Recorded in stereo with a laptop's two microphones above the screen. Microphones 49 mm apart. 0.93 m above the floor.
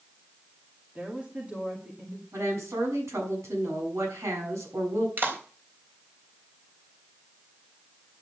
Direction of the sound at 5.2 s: 45° right (ahead or behind).